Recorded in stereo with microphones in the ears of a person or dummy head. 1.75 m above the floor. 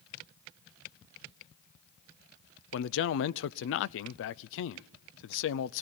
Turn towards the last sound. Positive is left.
turn(degrees=65)  # may be behind; listen again after turning